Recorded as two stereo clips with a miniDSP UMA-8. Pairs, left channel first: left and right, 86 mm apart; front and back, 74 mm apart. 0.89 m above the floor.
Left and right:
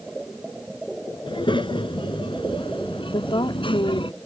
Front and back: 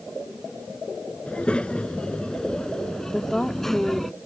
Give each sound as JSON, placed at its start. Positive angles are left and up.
{"t": 1.3, "sound": "a child speaking", "azimuth_deg": 75}
{"t": 3.1, "sound": "a woman speaking", "azimuth_deg": 80}